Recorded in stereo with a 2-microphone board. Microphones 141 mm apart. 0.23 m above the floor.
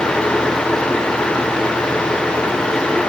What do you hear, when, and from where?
Only background noise.